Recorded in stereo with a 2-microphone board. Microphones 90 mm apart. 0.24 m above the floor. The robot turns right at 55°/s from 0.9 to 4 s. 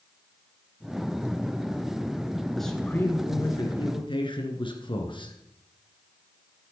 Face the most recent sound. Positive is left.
turn(degrees=80)